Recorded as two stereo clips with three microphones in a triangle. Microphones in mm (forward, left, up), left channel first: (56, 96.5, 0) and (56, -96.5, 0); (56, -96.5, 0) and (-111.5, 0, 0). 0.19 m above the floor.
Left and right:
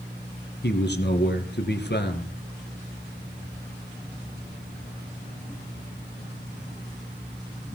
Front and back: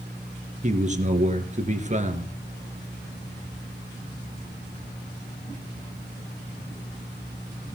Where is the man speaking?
105° left, 2.5 m.